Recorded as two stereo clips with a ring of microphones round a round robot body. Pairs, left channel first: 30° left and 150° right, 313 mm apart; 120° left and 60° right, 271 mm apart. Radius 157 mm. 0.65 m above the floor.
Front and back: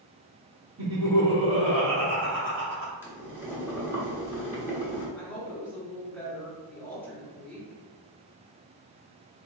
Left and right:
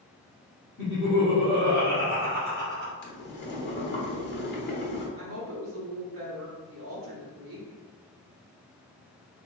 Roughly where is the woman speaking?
Ahead right.